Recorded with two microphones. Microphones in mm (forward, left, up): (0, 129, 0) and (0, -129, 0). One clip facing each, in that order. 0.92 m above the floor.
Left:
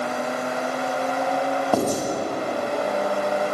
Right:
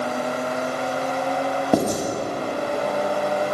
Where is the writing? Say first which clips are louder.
Right 3 dB; 20° right (ahead or behind), 0.8 m.